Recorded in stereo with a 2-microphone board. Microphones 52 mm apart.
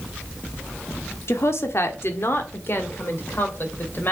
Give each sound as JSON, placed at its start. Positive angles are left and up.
{"t": 1.3, "sound": "a woman speaking", "side_deg": 60, "distance_m": 1.3}